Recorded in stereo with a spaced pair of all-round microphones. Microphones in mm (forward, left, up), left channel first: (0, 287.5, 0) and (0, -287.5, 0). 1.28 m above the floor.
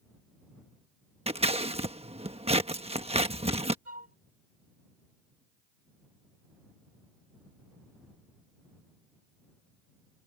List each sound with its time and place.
1.3 s scissors: 10° right (ahead or behind)
3.9 s a flute: 60° right (ahead or behind)